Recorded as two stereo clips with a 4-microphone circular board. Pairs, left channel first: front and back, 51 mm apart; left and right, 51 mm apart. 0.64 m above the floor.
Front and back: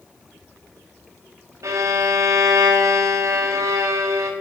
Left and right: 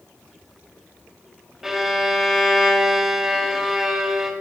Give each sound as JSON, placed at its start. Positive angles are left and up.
{"t": 1.6, "sound": "a violin", "azimuth_deg": -170, "distance_m": 1.5}